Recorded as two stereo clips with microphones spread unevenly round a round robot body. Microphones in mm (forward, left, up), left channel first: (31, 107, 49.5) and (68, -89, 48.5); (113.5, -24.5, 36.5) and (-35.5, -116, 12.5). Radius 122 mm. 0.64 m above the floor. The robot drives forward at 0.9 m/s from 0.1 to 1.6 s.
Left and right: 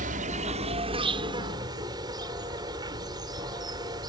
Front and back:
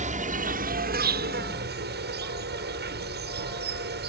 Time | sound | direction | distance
0.0 | an insect | 125° right | ?